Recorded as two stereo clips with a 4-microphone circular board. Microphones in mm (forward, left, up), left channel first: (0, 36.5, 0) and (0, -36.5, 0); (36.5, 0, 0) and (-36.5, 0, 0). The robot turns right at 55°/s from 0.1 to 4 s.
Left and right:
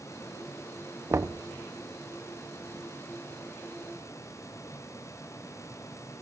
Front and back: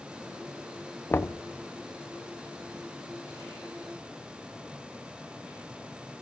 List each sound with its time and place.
1.1 s knocking: 55° right, 0.7 m; by 1.4 s 35° right, 0.7 m